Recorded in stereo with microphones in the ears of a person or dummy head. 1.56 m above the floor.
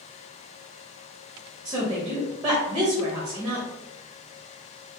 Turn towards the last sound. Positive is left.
turn(degrees=-15)  # may be behind; listen again after turning